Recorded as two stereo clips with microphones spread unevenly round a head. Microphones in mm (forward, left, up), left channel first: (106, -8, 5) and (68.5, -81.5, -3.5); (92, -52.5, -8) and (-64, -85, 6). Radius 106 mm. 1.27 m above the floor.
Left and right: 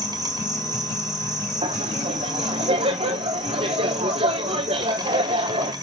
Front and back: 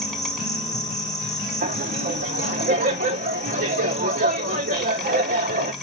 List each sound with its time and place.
0.0 s an insect: 80° right, 1.7 m
1.6 s laughter: 140° right, 0.9 m